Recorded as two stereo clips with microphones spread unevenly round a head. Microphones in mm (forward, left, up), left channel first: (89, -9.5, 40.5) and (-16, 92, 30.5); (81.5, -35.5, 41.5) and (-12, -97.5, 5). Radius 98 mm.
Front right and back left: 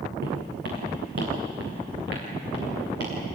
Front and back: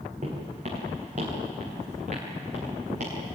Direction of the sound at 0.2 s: 150° left.